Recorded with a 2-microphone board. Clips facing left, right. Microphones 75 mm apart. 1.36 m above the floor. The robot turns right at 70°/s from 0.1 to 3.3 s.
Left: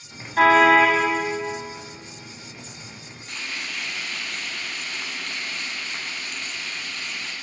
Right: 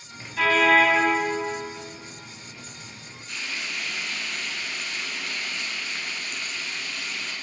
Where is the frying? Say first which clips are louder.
Even; 45° left (ahead or behind), 9.5 m; by 7.3 s 50° left (ahead or behind), 9.5 m.